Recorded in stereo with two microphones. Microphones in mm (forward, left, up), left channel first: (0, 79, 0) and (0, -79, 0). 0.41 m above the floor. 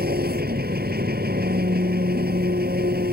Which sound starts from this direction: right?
An engine running, at 0.0 s.